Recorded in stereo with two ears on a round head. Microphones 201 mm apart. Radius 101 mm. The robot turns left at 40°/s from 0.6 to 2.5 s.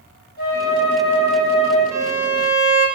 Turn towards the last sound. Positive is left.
turn(degrees=-15)  # may be behind; listen again after turning